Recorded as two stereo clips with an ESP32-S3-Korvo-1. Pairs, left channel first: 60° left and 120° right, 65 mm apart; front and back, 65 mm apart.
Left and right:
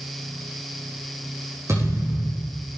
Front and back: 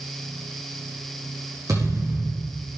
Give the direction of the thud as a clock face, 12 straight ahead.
5 o'clock.